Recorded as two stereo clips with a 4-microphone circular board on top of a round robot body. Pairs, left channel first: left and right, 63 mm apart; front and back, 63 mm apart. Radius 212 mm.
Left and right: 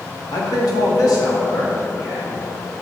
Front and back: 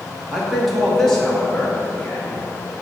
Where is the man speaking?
95° left, 1.9 m; by 2.4 s 70° left, 3 m.